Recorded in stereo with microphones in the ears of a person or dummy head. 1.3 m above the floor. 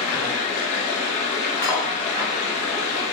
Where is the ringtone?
I don't hear a ringtone.